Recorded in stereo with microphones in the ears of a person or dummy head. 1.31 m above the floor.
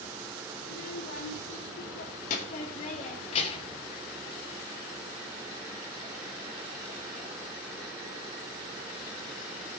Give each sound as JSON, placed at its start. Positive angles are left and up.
{"t": 0.6, "sound": "a child speaking", "side_deg": 60, "distance_m": 2.5}